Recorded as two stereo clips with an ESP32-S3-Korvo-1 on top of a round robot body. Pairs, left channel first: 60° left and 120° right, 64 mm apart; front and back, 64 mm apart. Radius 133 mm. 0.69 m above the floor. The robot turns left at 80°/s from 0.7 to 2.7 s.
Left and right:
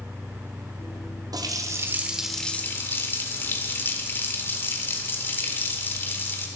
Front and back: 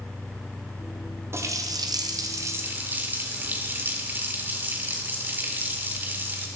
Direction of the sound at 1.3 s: 130° right.